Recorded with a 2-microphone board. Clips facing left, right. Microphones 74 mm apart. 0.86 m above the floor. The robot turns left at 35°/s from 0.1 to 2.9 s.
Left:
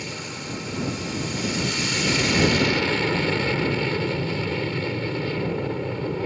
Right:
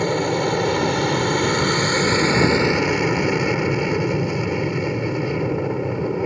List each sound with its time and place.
0.0 s an aircraft: 65° right; by 6.3 s 160° right